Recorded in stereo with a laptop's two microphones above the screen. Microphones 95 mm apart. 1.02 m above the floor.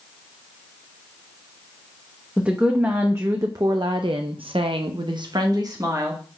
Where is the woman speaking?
15° right (ahead or behind), 1.1 m; by 6.4 s 35° right (ahead or behind), 1.3 m.